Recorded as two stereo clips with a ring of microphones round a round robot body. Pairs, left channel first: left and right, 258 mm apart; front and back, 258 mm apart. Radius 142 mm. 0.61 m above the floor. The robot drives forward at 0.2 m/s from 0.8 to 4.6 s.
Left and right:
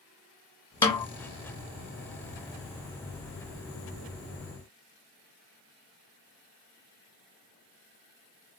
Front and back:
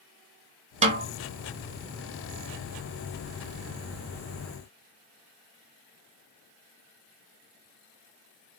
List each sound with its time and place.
0.8 s a snare drum: 150° left, 1.1 m; by 1.1 s 155° left, 1.1 m